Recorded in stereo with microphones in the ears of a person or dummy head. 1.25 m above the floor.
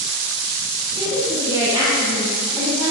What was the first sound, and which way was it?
A woman speaking, 25° right (ahead or behind).